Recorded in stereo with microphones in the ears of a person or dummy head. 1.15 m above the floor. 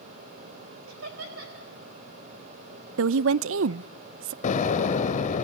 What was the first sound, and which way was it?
Laughter, 85° right.